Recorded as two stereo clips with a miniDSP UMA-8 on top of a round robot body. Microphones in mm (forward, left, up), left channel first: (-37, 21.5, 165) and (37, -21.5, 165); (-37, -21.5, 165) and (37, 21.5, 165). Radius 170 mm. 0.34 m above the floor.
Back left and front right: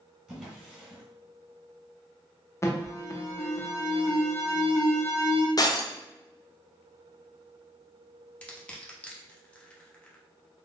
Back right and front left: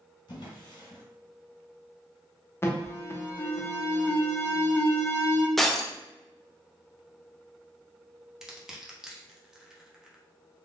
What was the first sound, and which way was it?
A drawer, 115° right.